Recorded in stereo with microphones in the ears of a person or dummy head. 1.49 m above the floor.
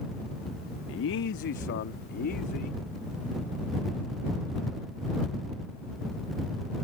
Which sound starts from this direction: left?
A man speaking, at 0.9 s.